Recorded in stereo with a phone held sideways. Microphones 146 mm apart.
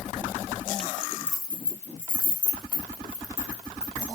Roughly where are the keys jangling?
Centre.